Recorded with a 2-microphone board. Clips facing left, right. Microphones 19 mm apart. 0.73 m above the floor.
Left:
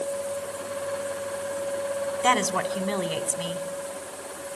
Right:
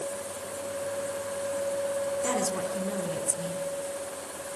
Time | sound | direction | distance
2.2 | a woman speaking | 55° left (ahead or behind) | 2 m